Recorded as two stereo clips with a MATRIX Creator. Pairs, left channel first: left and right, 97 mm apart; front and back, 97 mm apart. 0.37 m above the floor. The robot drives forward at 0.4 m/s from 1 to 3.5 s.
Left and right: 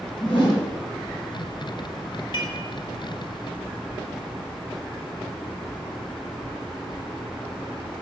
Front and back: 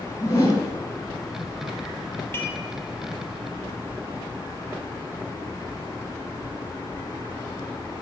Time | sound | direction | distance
0.2 | a whoosh | 60° left | 3 m
2.3 | dishes clattering | 65° left | 1.3 m